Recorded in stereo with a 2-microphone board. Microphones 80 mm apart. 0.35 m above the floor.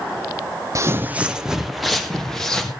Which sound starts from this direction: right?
Footsteps, at 0.8 s.